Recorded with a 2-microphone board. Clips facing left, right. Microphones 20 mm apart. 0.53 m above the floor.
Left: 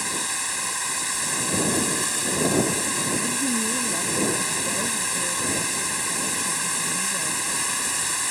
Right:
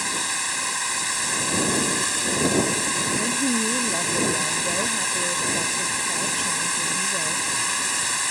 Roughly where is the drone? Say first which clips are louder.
Right 2 dB; centre.